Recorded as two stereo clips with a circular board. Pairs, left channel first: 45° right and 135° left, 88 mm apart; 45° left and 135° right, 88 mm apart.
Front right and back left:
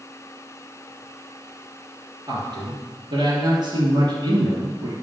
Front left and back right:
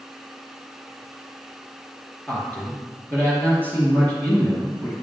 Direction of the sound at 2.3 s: 115° left.